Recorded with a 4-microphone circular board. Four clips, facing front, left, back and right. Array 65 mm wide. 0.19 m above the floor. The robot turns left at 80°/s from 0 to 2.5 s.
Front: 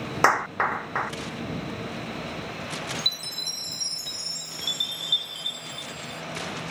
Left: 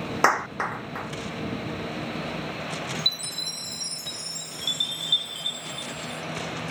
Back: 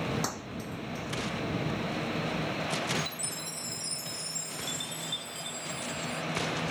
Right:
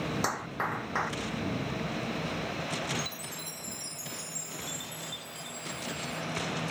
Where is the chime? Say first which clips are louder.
Left 4 dB, front 1 dB; 65° left.